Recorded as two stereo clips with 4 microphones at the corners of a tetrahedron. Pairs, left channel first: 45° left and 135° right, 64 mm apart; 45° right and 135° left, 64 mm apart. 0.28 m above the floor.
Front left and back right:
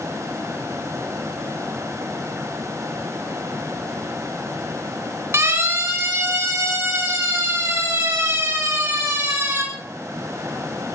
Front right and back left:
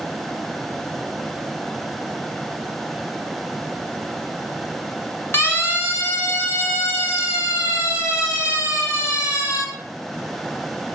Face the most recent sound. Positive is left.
turn(degrees=-85)